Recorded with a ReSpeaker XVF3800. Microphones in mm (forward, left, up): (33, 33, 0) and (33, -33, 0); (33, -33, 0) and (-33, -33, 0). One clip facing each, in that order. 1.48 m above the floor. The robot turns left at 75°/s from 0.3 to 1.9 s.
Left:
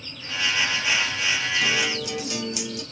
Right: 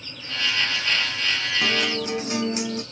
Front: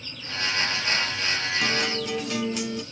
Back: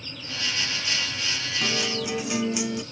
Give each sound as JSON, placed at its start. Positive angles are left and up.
{"t": 1.6, "sound": "a guitar", "azimuth_deg": -80, "distance_m": 0.6}